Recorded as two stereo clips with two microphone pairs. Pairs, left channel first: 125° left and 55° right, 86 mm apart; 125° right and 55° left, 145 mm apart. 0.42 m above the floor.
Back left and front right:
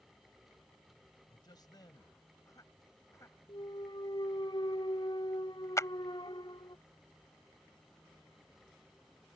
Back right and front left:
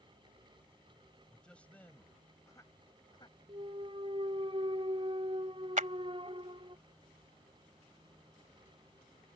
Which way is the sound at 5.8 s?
75° left.